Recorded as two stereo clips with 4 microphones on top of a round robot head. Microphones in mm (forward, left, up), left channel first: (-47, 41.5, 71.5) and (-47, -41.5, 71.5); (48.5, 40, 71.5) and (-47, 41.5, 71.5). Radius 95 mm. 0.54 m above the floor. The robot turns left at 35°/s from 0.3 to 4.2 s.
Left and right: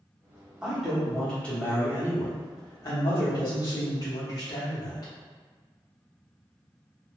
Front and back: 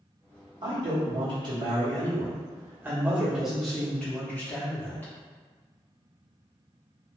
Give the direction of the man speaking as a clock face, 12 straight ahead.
6 o'clock.